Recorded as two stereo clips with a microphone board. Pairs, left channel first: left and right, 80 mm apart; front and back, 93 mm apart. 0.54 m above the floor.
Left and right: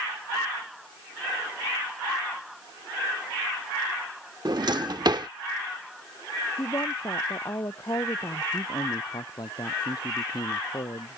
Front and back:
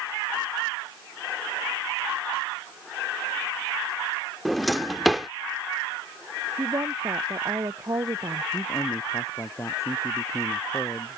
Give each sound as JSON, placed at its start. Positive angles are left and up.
{"t": 4.5, "sound": "a drawer", "azimuth_deg": -90}
{"t": 6.6, "sound": "a woman speaking", "azimuth_deg": 130}
{"t": 8.5, "sound": "a man speaking", "azimuth_deg": 60}